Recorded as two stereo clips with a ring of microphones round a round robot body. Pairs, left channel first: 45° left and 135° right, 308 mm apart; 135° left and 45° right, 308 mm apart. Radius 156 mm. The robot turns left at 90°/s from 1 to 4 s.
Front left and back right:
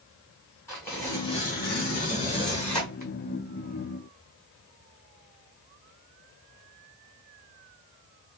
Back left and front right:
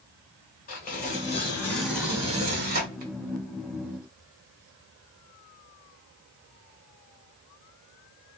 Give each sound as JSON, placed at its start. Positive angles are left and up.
{"t": 0.7, "sound": "tearing paper", "azimuth_deg": 120, "distance_m": 1.4}